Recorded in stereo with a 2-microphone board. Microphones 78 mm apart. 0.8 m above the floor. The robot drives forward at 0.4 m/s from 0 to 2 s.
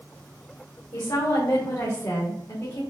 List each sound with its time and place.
0.9 s a woman speaking: 65° left (ahead or behind), 1.6 m; by 2.8 s 55° left (ahead or behind), 1.8 m